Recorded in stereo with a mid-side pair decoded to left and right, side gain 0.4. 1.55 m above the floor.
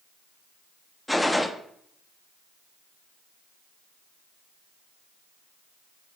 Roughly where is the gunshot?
Ahead.